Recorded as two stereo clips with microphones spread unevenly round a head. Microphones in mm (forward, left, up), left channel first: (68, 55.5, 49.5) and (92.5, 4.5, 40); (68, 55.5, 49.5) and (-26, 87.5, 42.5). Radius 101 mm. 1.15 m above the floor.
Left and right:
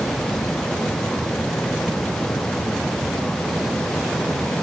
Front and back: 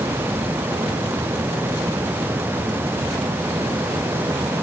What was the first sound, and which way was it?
Only background noise.